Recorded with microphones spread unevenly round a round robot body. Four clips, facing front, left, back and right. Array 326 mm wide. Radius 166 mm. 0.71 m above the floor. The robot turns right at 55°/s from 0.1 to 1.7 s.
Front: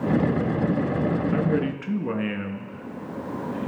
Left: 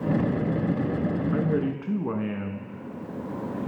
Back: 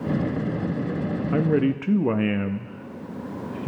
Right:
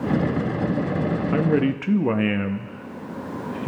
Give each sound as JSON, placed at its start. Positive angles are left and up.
{"t": 1.3, "sound": "a man speaking", "azimuth_deg": -155, "distance_m": 0.5}